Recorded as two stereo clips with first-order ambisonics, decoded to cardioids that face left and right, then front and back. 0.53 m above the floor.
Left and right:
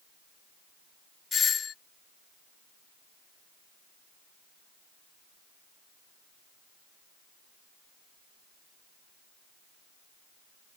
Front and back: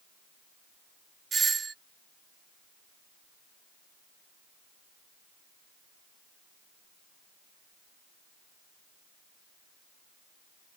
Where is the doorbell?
125° left.